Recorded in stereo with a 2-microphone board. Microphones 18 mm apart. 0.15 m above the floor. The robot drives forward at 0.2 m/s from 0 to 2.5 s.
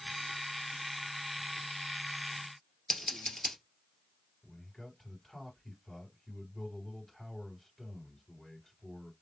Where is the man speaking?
10° left (ahead or behind), 3 m.